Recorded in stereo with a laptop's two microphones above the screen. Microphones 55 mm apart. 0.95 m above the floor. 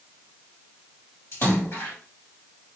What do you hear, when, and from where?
1.3 s a splash: 55° left (ahead or behind), 2 m